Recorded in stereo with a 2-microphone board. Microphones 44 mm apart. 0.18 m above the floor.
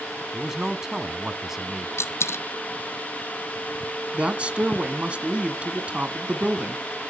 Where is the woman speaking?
25° right (ahead or behind), 1.6 m.